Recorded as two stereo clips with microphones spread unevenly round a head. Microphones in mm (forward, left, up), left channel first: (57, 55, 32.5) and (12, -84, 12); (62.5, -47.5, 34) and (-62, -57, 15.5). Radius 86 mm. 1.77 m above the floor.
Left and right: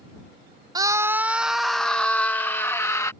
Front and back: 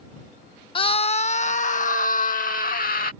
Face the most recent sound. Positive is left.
turn(degrees=5)